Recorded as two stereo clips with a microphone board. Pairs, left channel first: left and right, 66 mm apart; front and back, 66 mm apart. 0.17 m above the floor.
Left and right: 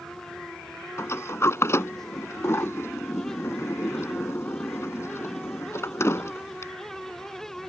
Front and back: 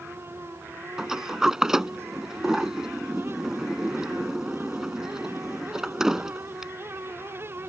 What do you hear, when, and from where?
1.0 s a sliding door: 100° left